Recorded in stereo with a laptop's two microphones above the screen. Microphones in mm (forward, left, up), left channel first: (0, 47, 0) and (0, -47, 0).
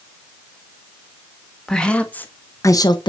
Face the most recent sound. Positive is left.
turn(degrees=50)  # may be behind; listen again after turning